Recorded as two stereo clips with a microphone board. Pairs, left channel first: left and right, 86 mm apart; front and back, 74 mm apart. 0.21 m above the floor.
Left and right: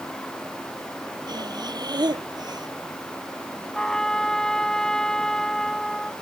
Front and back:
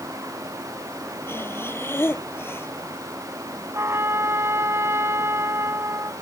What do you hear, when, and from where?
1.3 s breathing: 55° right
3.8 s a trumpet: 170° left